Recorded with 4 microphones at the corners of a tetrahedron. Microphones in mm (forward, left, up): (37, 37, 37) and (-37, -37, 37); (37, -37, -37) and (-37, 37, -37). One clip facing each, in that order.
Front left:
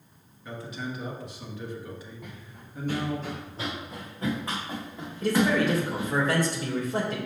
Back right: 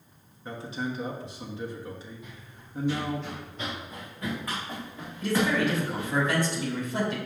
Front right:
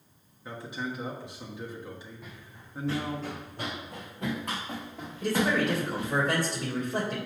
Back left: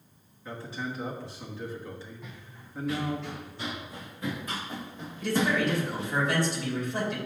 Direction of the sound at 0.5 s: 100° right.